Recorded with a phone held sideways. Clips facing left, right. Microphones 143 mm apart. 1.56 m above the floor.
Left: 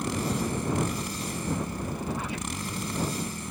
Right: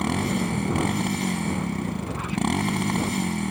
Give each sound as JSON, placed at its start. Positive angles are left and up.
{"t": 0.0, "sound": "a motorcycle", "side_deg": -70}